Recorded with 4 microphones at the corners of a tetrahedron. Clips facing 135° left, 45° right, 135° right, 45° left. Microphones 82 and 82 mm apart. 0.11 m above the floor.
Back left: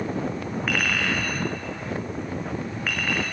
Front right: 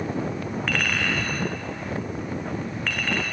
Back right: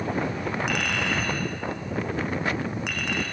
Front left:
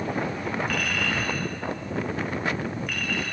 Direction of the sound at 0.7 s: 140° right.